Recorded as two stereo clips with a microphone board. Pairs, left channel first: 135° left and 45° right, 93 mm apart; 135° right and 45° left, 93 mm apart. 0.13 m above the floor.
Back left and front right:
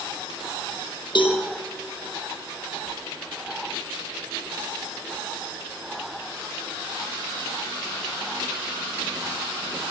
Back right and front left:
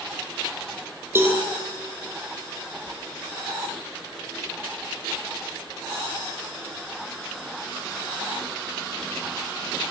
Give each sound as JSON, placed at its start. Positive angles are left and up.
{"t": 1.1, "sound": "a cowbell", "azimuth_deg": 110, "distance_m": 4.0}